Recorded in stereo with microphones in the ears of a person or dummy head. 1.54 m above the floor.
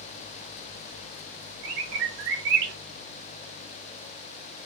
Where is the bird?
60° right (ahead or behind), 0.6 m.